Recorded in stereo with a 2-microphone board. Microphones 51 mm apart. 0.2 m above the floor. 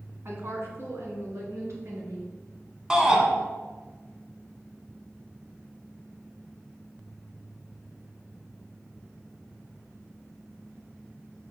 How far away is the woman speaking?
About 2 m.